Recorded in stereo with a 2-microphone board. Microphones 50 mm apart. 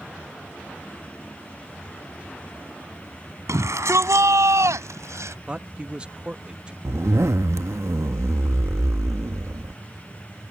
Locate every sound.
3.5 s a shout: 75° right (ahead or behind)
5.5 s a man speaking: 20° right (ahead or behind)
6.8 s a zipper: 70° right (ahead or behind)